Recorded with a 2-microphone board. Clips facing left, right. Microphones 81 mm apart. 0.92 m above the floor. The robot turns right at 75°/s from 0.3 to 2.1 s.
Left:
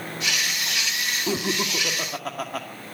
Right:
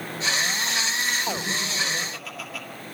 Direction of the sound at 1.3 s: 70° left.